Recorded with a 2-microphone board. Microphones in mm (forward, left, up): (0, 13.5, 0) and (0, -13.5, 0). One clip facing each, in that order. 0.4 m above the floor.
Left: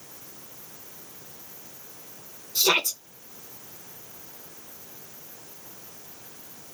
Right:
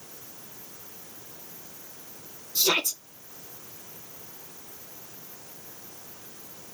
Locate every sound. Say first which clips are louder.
2.5 s a shout: left 2 dB; 35° left (ahead or behind), 1.0 m